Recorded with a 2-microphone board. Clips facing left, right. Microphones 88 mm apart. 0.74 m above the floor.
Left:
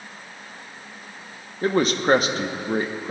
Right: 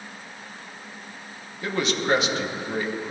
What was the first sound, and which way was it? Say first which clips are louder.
A man speaking: left 5 dB; 40° left (ahead or behind).